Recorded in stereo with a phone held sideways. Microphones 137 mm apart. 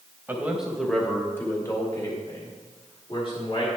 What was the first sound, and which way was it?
A man speaking, 15° right (ahead or behind).